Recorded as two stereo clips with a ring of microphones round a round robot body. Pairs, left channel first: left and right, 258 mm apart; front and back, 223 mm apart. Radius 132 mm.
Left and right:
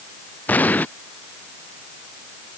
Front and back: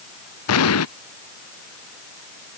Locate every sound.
0.5 s an explosion: 5° left